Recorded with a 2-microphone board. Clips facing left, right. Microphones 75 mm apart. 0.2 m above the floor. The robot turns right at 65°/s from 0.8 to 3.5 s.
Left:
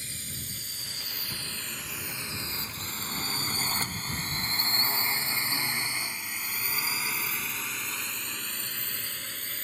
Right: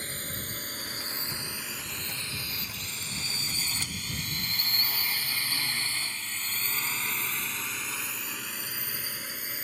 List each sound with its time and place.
0.0 s a drone: 45° right (ahead or behind); by 9.7 s 10° right (ahead or behind)